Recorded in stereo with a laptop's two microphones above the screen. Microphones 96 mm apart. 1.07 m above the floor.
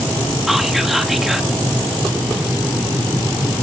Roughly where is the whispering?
Centre.